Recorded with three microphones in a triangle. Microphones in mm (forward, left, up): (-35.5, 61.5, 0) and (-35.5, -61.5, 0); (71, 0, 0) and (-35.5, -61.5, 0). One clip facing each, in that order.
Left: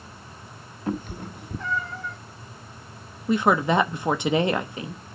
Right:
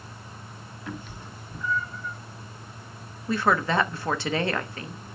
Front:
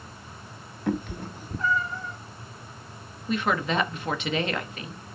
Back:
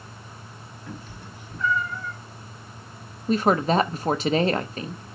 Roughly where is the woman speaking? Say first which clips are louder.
Left 3 dB, back 6 dB; behind.